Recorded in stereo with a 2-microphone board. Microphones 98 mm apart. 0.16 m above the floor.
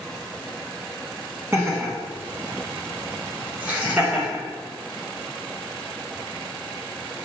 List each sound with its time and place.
1.5 s laughter: 20° right (ahead or behind), 1.5 m; by 4.4 s 15° right (ahead or behind), 2 m